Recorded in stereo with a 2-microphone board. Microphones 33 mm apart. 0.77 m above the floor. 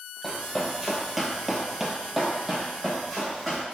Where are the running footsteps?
Centre (ahead or behind), 1.2 m; by 3.6 s 5° right (ahead or behind), 2 m.